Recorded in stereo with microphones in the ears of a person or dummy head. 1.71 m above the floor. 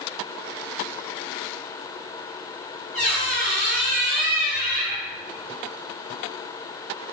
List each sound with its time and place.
2.9 s a squeak: 40° right (ahead or behind), 4 m